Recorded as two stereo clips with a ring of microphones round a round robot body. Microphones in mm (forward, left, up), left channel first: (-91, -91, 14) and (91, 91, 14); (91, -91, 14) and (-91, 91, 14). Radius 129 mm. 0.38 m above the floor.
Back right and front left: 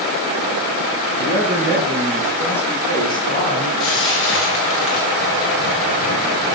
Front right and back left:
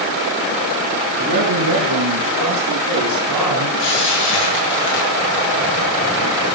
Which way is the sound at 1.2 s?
125° left.